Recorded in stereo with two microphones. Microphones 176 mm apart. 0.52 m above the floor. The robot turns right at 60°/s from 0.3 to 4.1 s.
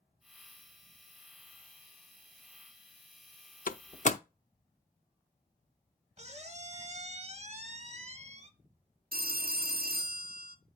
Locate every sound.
3.7 s a door slam: 55° left (ahead or behind), 0.6 m; by 4.2 s 45° left (ahead or behind), 0.6 m
6.2 s a squeak: 40° right (ahead or behind), 0.9 m
9.1 s a phone ringing: 65° right (ahead or behind), 0.8 m